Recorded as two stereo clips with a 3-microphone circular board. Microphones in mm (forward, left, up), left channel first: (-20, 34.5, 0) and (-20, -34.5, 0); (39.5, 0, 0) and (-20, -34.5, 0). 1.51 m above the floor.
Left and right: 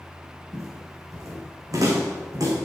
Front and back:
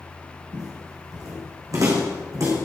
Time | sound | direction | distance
0.5 | footsteps | 125° right | 5 m